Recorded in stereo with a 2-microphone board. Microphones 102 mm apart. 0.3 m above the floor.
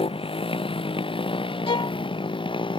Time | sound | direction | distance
0.0 | a motorcycle | 65° left (ahead or behind) | ?
1.7 | a violin | 60° left (ahead or behind) | ?